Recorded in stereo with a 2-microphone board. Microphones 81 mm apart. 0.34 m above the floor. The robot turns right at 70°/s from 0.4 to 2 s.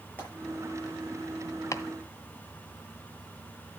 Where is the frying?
30° left (ahead or behind), 7 m.